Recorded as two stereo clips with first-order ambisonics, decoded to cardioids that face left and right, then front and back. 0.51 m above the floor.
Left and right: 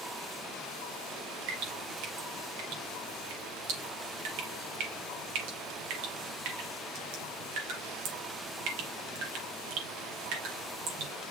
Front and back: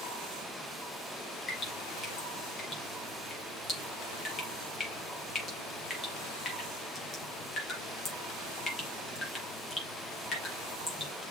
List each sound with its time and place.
1.5 s dripping: 70° right, 4.5 m